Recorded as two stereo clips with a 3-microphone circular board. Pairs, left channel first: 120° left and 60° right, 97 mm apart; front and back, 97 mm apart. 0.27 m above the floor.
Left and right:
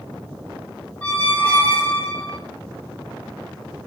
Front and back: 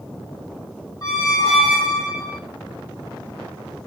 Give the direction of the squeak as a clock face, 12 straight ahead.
10 o'clock.